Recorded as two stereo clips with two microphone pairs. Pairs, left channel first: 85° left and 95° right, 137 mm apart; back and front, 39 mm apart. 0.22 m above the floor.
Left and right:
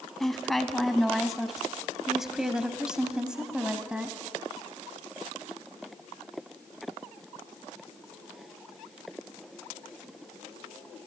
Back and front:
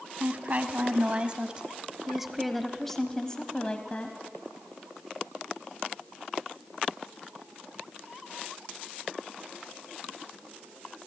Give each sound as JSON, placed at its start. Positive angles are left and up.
{"t": 0.2, "sound": "a woman speaking", "azimuth_deg": 0, "distance_m": 1.7}